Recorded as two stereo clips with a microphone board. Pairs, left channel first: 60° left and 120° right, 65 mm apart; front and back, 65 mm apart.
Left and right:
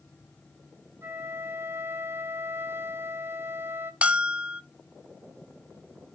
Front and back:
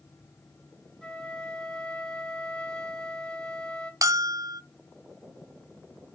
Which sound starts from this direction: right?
A flute, at 1.0 s.